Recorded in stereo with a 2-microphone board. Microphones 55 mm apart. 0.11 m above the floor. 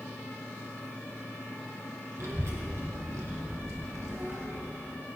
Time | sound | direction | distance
2.2 | a child speaking | 65° right (ahead or behind) | 2 m